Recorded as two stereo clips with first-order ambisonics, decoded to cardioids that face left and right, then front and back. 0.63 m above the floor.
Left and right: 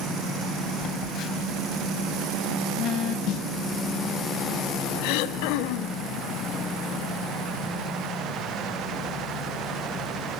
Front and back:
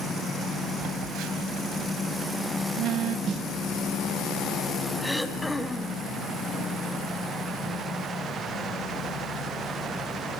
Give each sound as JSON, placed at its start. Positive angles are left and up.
{"t": 0.8, "sound": "a phone buzzing", "azimuth_deg": 145, "distance_m": 1.7}
{"t": 3.3, "sound": "a snare drum", "azimuth_deg": 125, "distance_m": 0.6}
{"t": 5.0, "sound": "throat clearing", "azimuth_deg": 85, "distance_m": 1.7}